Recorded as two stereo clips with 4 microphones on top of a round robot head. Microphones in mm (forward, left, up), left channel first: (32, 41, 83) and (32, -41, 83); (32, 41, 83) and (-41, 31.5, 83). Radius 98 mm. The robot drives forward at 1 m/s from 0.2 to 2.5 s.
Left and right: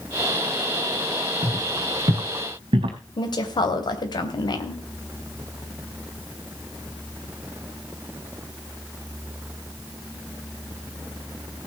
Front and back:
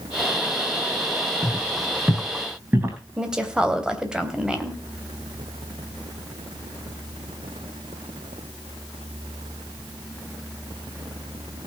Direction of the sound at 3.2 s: 110° left.